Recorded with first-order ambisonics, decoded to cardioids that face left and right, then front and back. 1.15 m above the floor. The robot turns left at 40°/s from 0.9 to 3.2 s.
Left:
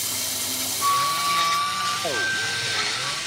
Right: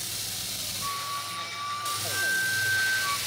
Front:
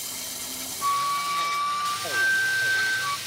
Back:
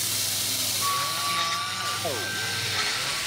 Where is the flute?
75° left, 0.7 m; by 3.2 s 15° right, 0.7 m.